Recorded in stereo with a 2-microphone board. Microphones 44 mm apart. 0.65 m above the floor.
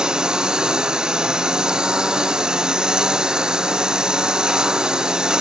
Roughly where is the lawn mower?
Centre.